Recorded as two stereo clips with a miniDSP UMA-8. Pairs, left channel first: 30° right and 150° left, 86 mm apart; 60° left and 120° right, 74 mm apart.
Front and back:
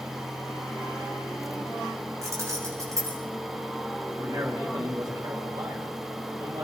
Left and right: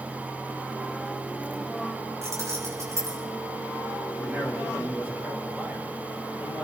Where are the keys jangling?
165° right, 7.5 m.